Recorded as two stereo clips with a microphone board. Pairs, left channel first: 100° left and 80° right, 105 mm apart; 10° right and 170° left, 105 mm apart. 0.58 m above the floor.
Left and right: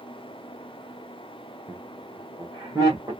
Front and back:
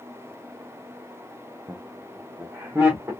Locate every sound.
1.7 s laughter: 130° right, 0.6 m; by 3.1 s 125° right, 1.6 m